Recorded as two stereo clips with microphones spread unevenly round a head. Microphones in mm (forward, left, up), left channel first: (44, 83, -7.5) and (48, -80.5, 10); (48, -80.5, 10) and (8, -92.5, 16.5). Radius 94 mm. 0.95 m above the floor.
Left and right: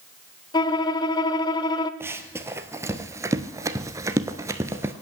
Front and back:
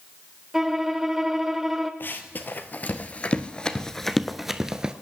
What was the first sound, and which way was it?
A violin, 145° left.